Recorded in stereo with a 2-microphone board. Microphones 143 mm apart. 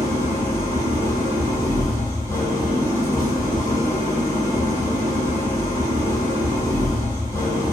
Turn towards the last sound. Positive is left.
turn(degrees=15)  # may be behind; listen again after turning